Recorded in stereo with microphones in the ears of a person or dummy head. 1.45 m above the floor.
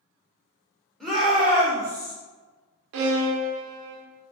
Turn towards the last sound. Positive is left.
turn(degrees=-70)  # may be behind; listen again after turning